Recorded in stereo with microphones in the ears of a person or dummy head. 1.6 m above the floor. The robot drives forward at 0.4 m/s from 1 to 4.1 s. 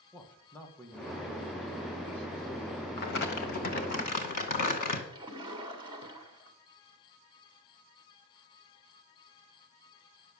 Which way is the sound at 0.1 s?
10° left (ahead or behind).